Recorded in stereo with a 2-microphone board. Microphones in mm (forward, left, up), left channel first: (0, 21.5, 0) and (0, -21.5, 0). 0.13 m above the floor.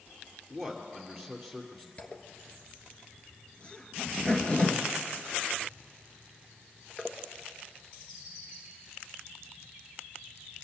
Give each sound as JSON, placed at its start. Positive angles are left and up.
{"t": 0.5, "sound": "a man speaking", "side_deg": 10, "distance_m": 2.5}
{"t": 2.0, "sound": "a zipper", "side_deg": 30, "distance_m": 1.2}